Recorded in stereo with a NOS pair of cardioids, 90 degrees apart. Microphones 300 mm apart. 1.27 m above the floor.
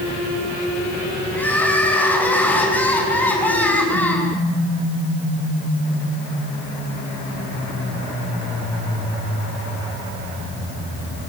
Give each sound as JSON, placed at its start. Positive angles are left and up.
{"t": 1.3, "sound": "crying", "azimuth_deg": 5, "distance_m": 7.0}